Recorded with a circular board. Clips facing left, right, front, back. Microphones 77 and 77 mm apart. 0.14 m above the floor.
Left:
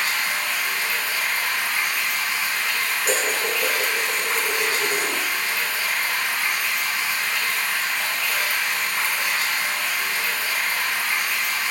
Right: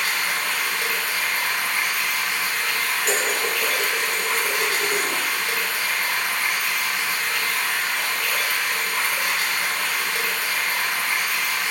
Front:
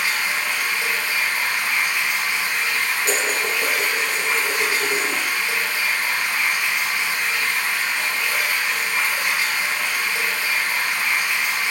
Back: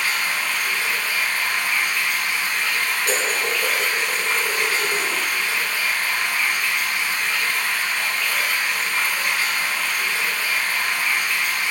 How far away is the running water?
About 0.8 m.